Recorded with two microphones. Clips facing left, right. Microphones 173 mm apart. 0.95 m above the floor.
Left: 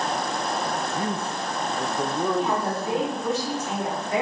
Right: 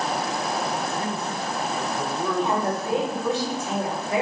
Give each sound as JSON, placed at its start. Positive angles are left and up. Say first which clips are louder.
{"t": 0.9, "sound": "a man speaking", "louder": "even", "side_deg": 30, "distance_m": 0.6}
{"t": 2.3, "sound": "a woman speaking", "louder": "right 1 dB", "side_deg": -30, "distance_m": 3.5}